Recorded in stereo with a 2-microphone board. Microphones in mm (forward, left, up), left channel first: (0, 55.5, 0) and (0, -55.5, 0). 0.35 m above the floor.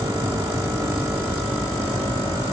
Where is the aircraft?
35° right (ahead or behind).